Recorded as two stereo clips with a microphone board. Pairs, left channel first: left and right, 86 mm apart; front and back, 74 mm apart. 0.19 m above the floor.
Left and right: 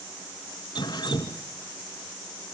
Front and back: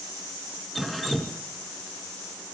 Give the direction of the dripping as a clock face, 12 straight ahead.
9 o'clock.